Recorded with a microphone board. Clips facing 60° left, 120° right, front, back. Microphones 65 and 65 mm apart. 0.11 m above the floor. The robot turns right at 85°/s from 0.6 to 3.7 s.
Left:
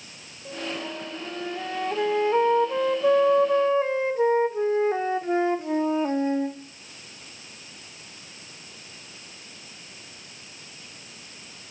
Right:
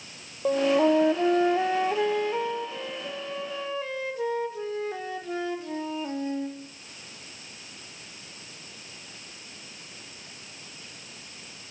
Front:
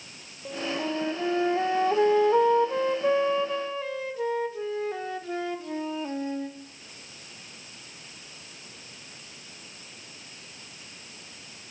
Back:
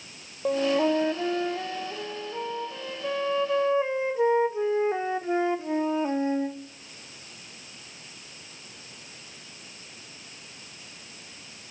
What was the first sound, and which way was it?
A flute, 145° right.